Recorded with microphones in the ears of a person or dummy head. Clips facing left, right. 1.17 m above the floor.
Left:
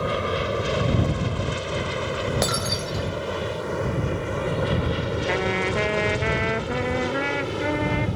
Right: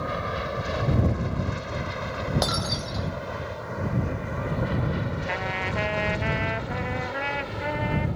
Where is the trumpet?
55° left (ahead or behind).